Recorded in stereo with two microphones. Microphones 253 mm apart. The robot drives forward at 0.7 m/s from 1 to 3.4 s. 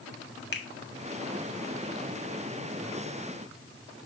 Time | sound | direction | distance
0.5 | a finger snap | 45° left (ahead or behind) | 1.6 m